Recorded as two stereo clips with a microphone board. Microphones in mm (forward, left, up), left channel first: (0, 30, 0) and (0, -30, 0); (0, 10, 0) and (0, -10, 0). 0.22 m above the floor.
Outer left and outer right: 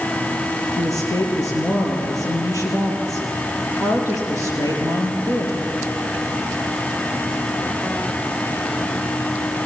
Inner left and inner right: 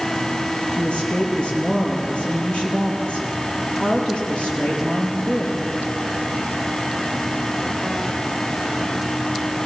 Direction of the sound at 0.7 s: 75° left (ahead or behind).